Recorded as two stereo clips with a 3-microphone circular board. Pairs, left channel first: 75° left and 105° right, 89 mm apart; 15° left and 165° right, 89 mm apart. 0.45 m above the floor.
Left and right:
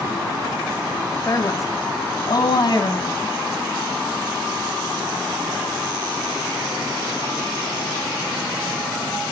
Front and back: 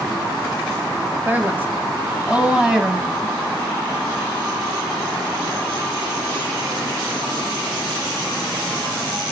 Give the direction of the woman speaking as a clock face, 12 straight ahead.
8 o'clock.